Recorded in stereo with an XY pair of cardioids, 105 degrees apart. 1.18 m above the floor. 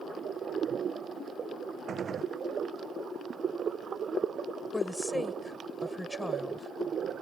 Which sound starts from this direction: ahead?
A woman speaking, at 4.7 s.